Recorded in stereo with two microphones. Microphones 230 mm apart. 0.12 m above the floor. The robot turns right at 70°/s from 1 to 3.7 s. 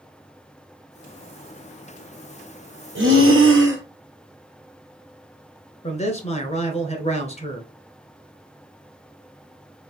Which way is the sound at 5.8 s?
30° left (ahead or behind).